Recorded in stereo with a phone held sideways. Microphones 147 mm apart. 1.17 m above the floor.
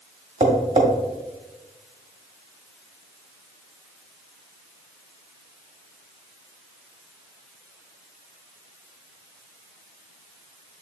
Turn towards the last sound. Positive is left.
turn(degrees=-60)  # may be behind; listen again after turning